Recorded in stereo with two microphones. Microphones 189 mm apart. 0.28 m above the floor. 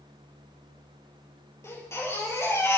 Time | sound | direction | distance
1.6 | a baby crying | 15° left (ahead or behind) | 3.5 m